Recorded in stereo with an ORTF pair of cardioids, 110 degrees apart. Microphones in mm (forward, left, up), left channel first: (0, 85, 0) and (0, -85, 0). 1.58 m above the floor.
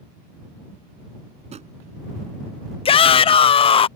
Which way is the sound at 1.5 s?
40° right.